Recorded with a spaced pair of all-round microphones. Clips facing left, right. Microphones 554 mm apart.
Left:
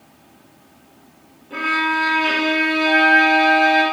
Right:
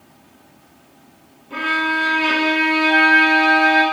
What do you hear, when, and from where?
1.5 s a violin: 30° right (ahead or behind), 0.6 m
2.9 s a flute: 45° right (ahead or behind), 1.5 m